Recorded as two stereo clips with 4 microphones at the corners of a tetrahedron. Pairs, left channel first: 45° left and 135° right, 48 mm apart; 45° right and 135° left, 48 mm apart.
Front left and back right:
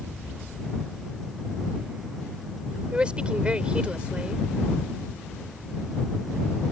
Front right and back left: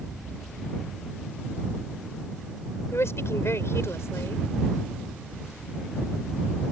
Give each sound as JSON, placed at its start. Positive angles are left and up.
{"t": 2.9, "sound": "a woman speaking", "azimuth_deg": -70}